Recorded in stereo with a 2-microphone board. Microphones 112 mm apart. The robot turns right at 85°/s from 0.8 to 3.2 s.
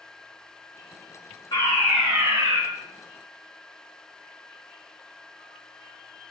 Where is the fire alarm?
140° left, 4.5 m; by 2.6 s 130° right, 4.5 m.